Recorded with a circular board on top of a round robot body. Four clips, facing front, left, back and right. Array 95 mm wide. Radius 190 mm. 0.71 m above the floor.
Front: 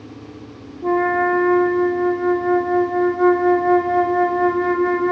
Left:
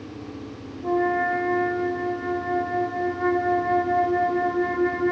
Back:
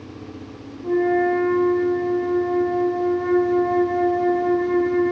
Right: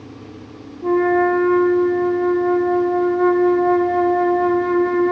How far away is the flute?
About 3 m.